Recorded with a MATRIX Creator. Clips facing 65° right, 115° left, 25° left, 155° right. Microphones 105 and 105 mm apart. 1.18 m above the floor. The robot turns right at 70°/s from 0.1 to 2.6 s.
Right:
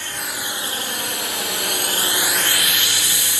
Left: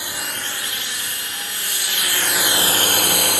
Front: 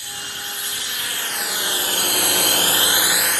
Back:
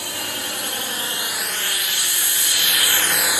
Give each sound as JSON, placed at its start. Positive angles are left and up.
{"t": 0.0, "sound": "a drone", "azimuth_deg": -170}